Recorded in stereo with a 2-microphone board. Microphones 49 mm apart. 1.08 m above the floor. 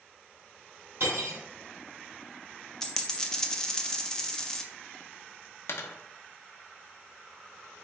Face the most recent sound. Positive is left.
turn(degrees=65)  # may be behind; listen again after turning